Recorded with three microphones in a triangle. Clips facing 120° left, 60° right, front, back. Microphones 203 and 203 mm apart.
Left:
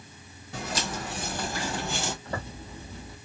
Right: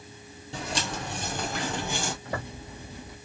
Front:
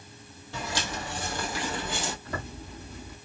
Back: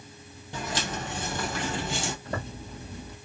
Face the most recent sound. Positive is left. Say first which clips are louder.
# right 1 dB, back 2 dB
turn(degrees=-130)